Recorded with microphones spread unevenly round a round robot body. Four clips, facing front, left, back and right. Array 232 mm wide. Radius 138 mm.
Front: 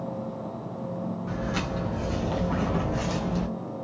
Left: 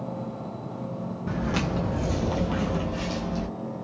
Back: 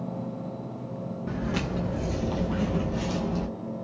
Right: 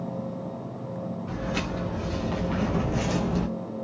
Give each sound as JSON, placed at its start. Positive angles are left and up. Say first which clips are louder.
{"t": 1.3, "sound": "footsteps", "louder": "left 5 dB, back 3 dB", "azimuth_deg": 120, "distance_m": 1.2}